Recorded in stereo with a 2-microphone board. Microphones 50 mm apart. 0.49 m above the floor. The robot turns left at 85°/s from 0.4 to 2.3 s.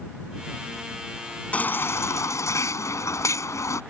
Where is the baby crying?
155° left; by 3.8 s 85° left.